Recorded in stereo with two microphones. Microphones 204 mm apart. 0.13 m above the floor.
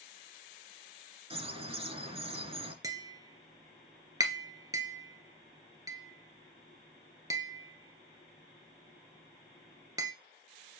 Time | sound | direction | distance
1.3 | a bird | 30° right (ahead or behind) | 1.3 m
2.8 | tapping | 15° right (ahead or behind) | 1.2 m